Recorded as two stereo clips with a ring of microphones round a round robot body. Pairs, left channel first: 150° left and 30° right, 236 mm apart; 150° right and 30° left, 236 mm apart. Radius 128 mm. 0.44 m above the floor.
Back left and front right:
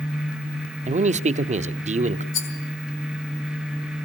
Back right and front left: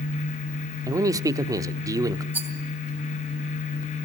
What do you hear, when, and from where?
0.9 s a man speaking: 30° right, 0.8 m
2.3 s a rattle: 115° left, 3 m